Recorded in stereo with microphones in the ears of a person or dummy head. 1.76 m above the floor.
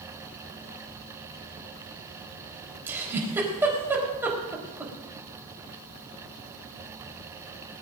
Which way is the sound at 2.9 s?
10° right (ahead or behind).